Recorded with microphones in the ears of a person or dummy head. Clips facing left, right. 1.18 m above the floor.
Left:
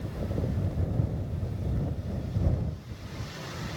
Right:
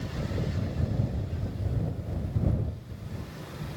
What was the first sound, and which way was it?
Only background noise.